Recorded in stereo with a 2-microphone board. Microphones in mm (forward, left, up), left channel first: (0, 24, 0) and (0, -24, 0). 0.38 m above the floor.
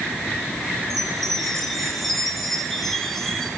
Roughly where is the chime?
Centre.